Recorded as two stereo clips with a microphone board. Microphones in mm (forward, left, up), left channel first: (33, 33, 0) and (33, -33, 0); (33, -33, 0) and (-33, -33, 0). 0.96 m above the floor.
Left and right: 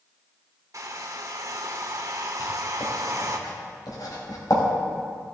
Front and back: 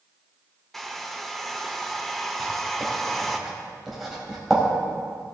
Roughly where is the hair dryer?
Right.